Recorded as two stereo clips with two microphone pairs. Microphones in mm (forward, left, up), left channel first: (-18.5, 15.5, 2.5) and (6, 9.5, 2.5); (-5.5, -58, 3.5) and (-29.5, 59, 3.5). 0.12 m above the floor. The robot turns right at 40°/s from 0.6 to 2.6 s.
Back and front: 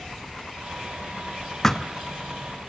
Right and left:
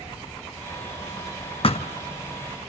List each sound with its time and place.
1.6 s a thud: 120° right, 1.2 m; by 1.9 s 110° right, 1.2 m